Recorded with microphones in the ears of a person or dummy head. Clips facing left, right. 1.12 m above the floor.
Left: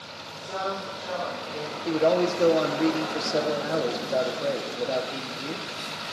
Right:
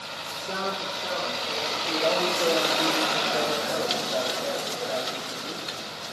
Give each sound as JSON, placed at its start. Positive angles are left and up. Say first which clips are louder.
{"t": 0.3, "sound": "a man speaking", "louder": "left 1 dB", "side_deg": -55, "distance_m": 2.5}
{"t": 1.9, "sound": "a man speaking", "louder": "left 5 dB", "side_deg": 50, "distance_m": 1.4}